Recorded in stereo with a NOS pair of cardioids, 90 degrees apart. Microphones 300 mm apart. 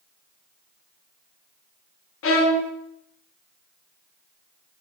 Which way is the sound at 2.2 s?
45° left.